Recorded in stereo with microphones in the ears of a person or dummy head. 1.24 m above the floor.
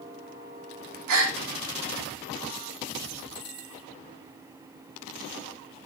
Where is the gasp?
75° right (ahead or behind), 3.5 m.